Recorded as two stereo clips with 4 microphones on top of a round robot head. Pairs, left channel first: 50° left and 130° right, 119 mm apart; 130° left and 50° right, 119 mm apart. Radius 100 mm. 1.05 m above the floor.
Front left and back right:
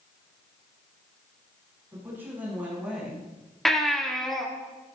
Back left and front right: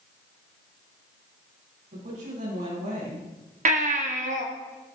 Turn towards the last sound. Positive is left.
turn(degrees=-40)